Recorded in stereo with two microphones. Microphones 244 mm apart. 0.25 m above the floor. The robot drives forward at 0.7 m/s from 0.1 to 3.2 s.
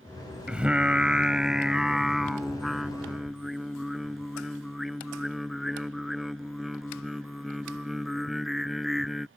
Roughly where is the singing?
Centre.